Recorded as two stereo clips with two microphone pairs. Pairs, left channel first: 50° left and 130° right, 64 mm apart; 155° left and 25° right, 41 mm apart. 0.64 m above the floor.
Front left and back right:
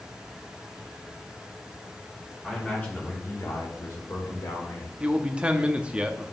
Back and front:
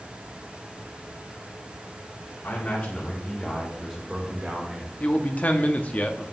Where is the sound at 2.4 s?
125° left, 2 m; by 4.9 s 35° left, 3 m.